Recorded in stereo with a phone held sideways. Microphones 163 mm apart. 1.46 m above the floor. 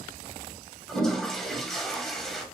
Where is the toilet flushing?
5° left (ahead or behind), 0.7 m.